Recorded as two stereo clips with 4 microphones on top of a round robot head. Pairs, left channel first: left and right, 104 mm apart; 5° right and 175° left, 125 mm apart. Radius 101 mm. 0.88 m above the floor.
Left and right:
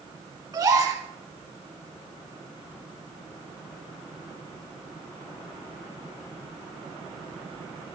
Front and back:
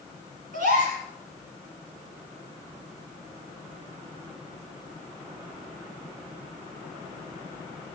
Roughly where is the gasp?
Behind right.